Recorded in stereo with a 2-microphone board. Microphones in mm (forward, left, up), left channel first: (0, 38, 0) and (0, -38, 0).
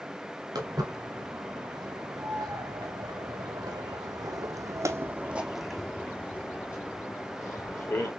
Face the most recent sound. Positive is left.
turn(degrees=40)  # may be behind; listen again after turning